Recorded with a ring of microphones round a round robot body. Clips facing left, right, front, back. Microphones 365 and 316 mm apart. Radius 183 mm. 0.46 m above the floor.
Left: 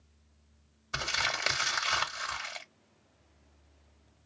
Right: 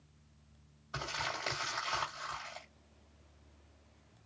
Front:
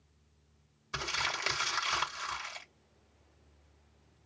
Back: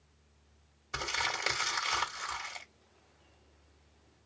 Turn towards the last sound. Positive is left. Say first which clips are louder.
# left 3 dB, back 1 dB
turn(degrees=65)